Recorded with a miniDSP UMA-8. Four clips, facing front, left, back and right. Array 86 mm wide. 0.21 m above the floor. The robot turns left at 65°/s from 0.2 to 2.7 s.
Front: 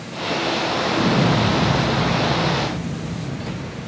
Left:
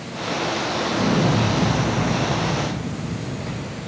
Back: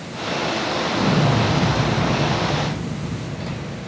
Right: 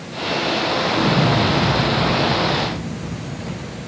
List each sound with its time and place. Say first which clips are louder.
0.9 s an explosion: right 1 dB, front 1 dB; 55° right, 2.5 m; by 3.8 s 175° right, 2.5 m